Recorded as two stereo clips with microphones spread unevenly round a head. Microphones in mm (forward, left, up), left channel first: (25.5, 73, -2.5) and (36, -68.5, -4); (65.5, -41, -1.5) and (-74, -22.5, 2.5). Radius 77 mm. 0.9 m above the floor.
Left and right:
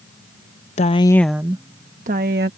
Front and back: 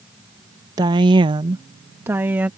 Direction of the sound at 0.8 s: 115° left.